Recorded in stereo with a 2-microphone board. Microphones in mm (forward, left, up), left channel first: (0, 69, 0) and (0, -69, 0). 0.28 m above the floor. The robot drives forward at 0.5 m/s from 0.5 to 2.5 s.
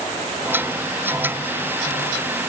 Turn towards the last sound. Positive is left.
No sound to turn to.